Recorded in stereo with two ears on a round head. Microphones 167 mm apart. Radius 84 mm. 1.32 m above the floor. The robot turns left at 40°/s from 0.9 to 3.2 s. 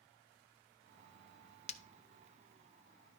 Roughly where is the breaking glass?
Left.